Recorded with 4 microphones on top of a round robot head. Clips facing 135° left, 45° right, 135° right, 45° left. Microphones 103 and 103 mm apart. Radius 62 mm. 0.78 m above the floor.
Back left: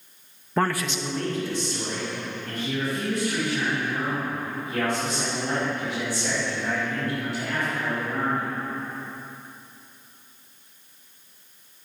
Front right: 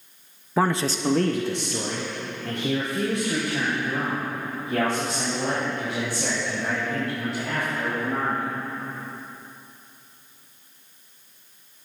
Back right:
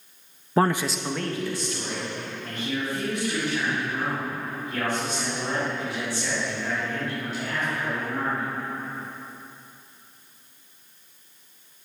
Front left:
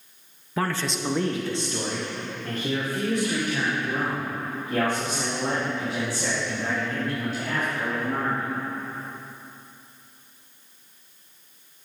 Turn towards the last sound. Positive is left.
turn(degrees=-10)